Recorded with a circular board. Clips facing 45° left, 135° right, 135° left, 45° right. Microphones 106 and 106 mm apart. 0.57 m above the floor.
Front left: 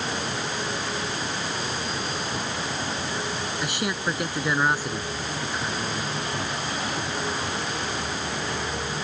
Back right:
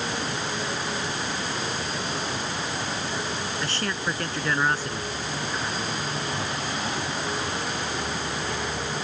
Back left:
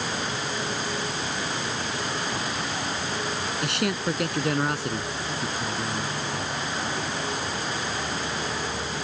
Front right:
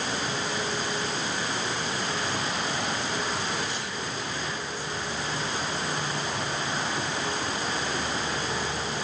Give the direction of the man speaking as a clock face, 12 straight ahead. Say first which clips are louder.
Front left 3 dB, back left 7 dB; 8 o'clock.